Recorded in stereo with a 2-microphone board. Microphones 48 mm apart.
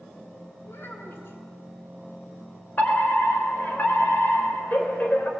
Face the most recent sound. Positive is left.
turn(degrees=40)  # may be behind; listen again after turning